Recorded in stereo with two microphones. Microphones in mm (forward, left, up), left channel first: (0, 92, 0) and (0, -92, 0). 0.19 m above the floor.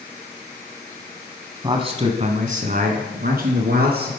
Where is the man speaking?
25° right (ahead or behind), 1.3 m; by 4.1 s 65° right (ahead or behind), 3 m.